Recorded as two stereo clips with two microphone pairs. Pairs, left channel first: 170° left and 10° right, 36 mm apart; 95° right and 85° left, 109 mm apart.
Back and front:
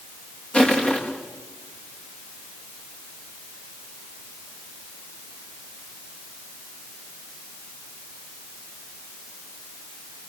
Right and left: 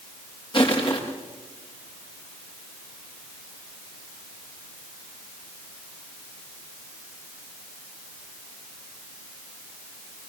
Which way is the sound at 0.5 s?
140° right.